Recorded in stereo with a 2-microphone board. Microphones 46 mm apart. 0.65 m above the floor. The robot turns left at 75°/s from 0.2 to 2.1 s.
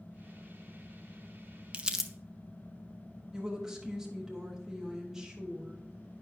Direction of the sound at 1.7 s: 25° right (ahead or behind).